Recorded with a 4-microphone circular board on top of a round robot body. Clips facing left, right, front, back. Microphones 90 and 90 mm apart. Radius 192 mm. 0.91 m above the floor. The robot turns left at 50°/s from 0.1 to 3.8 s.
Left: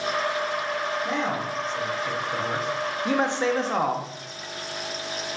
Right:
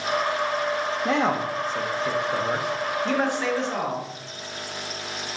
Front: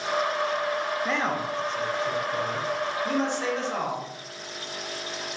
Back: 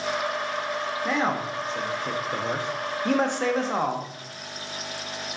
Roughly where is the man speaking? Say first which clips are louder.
Right 4 dB, back 1 dB; right.